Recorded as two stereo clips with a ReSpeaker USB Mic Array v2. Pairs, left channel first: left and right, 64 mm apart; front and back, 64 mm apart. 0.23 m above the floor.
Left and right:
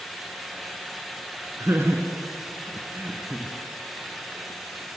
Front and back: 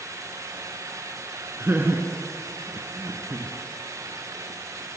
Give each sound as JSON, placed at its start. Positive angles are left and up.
{"t": 1.6, "sound": "laughter", "azimuth_deg": -125, "distance_m": 3.0}